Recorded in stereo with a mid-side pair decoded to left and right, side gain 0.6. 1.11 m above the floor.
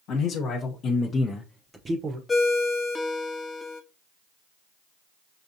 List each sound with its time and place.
0.1 s a man speaking: 65° left, 1.3 m; by 2.2 s 45° right, 0.8 m
2.3 s a ringtone: 20° left, 0.8 m